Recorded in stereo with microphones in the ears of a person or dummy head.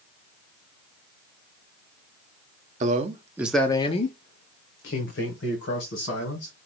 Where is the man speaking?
50° right (ahead or behind), 0.7 m; by 6.5 s 75° left (ahead or behind), 2 m.